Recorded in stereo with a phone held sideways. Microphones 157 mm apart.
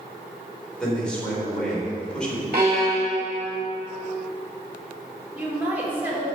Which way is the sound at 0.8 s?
5° left (ahead or behind).